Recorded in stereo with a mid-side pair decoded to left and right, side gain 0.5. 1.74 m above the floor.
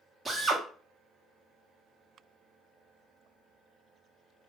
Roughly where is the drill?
Ahead right.